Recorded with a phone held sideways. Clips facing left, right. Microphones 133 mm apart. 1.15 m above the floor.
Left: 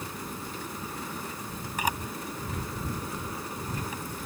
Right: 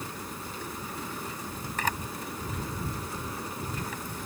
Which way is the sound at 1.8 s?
10° left (ahead or behind).